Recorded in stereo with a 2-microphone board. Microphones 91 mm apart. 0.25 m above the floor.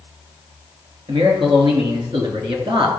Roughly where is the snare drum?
I don't hear a snare drum.